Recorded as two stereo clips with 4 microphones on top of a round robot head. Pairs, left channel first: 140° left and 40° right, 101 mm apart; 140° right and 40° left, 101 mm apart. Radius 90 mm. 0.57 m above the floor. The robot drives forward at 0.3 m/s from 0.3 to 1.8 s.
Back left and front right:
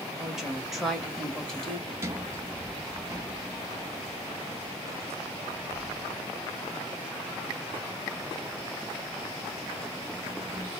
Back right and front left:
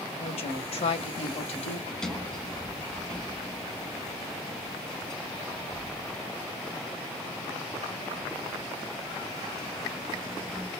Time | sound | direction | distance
0.2 | a woman speaking | 130° right | 2 m
1.9 | a sliding door | 60° right | 1.4 m